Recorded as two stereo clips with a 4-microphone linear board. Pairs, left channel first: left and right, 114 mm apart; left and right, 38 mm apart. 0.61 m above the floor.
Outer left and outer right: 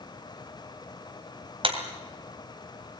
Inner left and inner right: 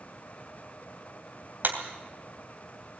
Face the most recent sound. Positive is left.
turn(degrees=-55)  # may be behind; listen again after turning